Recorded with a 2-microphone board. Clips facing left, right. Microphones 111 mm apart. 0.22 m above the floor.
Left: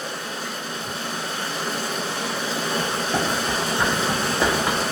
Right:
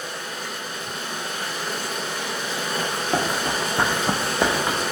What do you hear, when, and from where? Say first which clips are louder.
0.0 s running water: left 2 dB; 35° left (ahead or behind), 0.8 m
2.8 s running footsteps: right 2 dB; 50° right (ahead or behind), 1.3 m; by 4.8 s centre (ahead or behind), 0.8 m